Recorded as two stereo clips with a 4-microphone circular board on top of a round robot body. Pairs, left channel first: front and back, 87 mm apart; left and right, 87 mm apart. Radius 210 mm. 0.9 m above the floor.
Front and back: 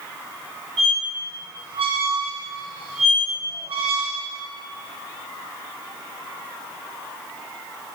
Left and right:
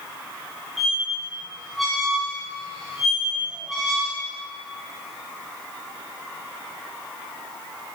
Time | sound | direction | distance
0.8 | a squeak | straight behind | 2 m